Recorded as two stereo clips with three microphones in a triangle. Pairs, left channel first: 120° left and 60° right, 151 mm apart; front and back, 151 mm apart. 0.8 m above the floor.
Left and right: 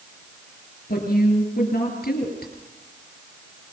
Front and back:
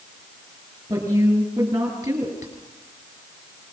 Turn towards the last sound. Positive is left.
turn(degrees=115)